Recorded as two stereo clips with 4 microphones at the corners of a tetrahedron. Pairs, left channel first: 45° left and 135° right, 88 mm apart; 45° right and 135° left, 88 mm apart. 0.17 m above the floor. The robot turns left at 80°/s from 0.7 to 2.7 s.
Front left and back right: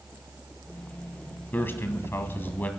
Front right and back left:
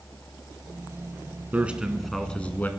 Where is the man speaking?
85° left, 1.8 m; by 2.7 s 5° right, 1.8 m.